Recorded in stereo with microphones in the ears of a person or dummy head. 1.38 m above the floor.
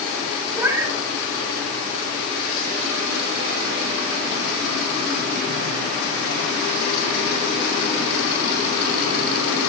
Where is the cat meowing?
20° right (ahead or behind), 4.5 m.